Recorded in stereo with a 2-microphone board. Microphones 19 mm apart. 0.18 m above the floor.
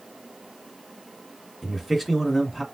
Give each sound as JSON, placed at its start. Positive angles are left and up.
{"t": 1.6, "sound": "a man speaking", "side_deg": -10, "distance_m": 1.9}